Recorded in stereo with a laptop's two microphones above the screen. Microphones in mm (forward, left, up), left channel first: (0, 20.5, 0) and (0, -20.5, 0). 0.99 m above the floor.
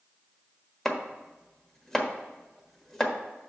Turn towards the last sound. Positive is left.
turn(degrees=10)  # may be behind; listen again after turning